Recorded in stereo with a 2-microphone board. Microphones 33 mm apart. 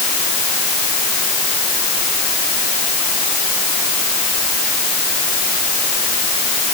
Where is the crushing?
No crushing in this recording.